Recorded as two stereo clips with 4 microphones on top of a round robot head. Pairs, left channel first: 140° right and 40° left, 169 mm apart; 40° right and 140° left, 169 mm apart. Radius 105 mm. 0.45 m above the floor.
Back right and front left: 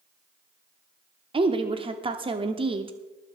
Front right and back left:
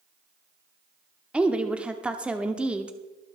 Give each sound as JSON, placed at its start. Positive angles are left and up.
{"t": 1.3, "sound": "a woman speaking", "azimuth_deg": 65, "distance_m": 0.9}